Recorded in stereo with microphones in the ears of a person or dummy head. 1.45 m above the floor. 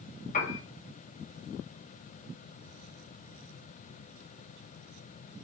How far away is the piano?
About 1.6 m.